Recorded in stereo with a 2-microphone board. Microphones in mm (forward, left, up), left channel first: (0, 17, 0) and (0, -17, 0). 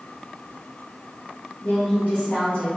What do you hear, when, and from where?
1.6 s a woman speaking: 65° left (ahead or behind), 1.7 m; by 2.7 s 50° left (ahead or behind), 2.5 m